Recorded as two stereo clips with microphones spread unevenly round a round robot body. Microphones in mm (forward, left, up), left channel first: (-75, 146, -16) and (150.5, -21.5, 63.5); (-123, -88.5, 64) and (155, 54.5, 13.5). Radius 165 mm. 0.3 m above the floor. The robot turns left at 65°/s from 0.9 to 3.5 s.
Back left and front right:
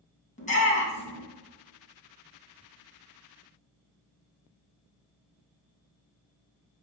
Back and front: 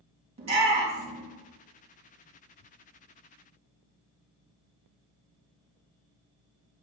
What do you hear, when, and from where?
0.4 s a shout: 90° left, 3 m; by 1.2 s 70° left, 3 m